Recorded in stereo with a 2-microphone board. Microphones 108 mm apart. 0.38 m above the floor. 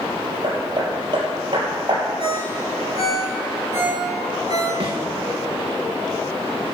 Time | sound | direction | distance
0.4 | hammering | 45° right (ahead or behind) | 3.5 m
2.2 | a ringtone | 80° left | 4.5 m
4.8 | a thud | 50° right (ahead or behind) | 3.5 m